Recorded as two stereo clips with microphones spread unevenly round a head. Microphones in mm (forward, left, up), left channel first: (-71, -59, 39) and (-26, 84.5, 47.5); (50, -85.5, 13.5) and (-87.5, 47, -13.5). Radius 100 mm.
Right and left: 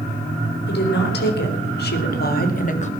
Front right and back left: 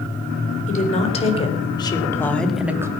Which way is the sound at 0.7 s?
95° right.